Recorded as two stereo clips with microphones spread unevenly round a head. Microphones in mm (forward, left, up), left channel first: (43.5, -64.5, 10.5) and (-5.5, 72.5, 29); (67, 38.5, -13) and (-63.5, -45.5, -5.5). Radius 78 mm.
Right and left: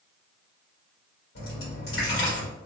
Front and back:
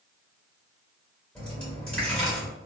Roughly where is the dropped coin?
Ahead right.